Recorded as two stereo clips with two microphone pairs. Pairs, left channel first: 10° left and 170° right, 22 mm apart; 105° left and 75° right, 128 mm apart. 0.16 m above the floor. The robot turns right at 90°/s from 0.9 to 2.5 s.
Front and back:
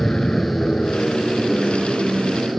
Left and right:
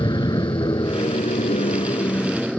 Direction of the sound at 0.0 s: 55° left.